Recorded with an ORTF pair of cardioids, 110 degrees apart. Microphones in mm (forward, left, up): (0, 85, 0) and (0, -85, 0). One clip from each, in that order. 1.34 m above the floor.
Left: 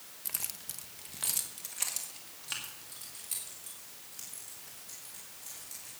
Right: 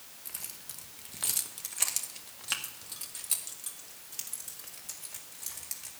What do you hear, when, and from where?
0.2 s keys jangling: 35° left, 1.1 m; by 5.9 s 55° right, 4.5 m